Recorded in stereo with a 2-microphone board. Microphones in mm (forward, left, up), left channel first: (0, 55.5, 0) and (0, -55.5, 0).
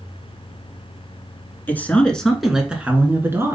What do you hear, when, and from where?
1.7 s a man speaking: 15° left (ahead or behind), 1.5 m; by 3.5 s 25° right (ahead or behind), 1.6 m